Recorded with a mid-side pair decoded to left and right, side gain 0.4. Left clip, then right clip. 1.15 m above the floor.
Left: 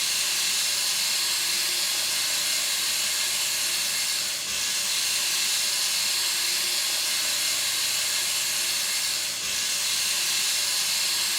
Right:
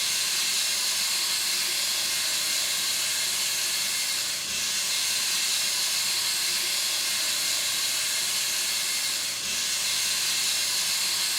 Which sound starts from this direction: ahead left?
Running water, at 0.0 s.